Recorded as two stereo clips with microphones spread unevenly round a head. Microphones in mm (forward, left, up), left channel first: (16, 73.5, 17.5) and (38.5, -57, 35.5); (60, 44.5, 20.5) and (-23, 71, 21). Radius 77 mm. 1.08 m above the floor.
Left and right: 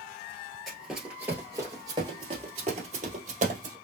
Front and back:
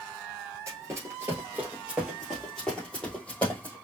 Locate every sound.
0.7 s running footsteps: 165° right, 1.3 m; by 3.8 s 90° right, 2.0 m